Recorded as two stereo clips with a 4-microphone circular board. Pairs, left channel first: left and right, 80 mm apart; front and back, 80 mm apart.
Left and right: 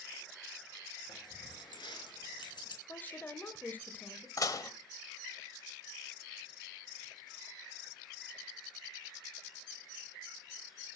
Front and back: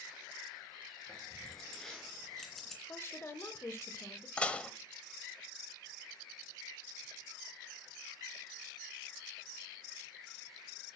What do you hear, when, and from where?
1.1 s keys jangling: 80° left, 3.5 m; by 2.8 s 85° left, 2.5 m
2.9 s a woman speaking: 40° left, 1.1 m
4.4 s dishes clattering: 70° left, 1.0 m